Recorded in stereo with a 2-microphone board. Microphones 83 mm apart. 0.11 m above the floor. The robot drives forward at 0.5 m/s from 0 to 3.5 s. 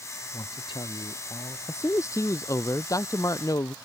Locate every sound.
0.3 s a man speaking: 65° left (ahead or behind); by 1.6 s 70° left (ahead or behind)
1.7 s a man speaking: 35° left (ahead or behind); by 3.8 s 45° left (ahead or behind)